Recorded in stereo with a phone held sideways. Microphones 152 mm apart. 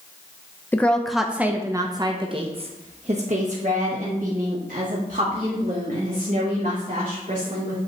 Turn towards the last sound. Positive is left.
turn(degrees=-65)  # may be behind; listen again after turning